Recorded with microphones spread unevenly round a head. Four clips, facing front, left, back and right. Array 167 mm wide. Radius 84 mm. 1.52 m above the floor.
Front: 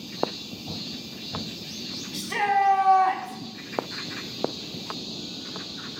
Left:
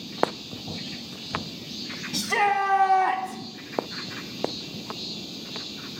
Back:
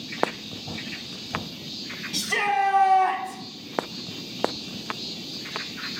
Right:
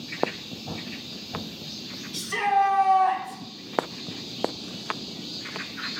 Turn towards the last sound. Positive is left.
turn(degrees=80)